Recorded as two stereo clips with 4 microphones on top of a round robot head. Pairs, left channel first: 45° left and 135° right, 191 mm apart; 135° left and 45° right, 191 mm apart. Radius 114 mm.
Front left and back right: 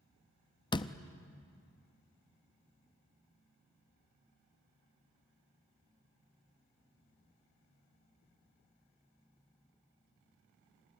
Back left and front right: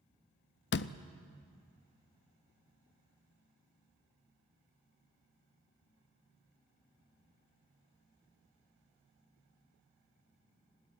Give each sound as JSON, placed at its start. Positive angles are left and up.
{"t": 0.7, "sound": "a door slam", "azimuth_deg": 110, "distance_m": 0.6}